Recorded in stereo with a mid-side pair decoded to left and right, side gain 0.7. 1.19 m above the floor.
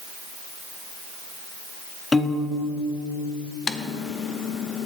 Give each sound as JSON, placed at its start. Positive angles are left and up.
{"t": 2.1, "sound": "a piano", "azimuth_deg": 10, "distance_m": 1.4}
{"t": 3.7, "sound": "typing on a keyboard", "azimuth_deg": 30, "distance_m": 0.9}